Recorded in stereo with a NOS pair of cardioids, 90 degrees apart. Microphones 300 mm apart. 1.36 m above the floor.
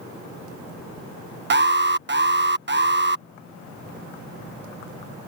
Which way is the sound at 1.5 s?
35° right.